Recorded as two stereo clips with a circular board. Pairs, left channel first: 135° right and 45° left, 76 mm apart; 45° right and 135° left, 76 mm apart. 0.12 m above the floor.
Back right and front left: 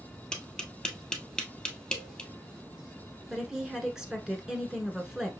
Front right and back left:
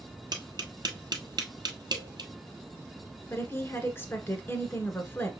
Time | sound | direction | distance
0.3 | tapping | 145° left | 1.2 m
3.3 | a woman speaking | 30° right | 1.3 m